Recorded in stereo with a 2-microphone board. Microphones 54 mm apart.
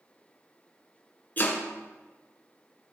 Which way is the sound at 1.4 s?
30° left (ahead or behind).